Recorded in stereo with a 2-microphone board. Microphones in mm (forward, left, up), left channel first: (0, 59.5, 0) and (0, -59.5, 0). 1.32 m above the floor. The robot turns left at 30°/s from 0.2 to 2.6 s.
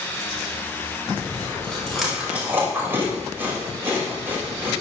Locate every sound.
1.1 s chewing: 30° left (ahead or behind), 6.5 m; by 4.7 s 20° right (ahead or behind), 6.5 m